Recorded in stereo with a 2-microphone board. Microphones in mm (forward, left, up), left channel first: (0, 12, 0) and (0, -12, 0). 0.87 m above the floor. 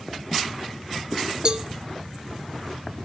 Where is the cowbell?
30° right (ahead or behind), 0.5 m.